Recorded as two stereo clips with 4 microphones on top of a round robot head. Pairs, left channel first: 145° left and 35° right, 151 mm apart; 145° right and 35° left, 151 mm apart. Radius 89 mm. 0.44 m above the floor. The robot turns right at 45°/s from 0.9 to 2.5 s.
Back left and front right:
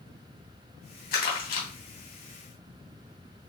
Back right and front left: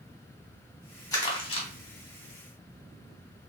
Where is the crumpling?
150° left, 2.5 m; by 1.7 s 175° left, 2.5 m.